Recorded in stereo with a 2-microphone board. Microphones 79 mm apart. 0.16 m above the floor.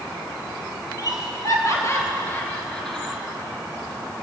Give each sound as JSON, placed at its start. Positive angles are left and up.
{"t": 1.0, "sound": "laughter", "side_deg": 55, "distance_m": 3.0}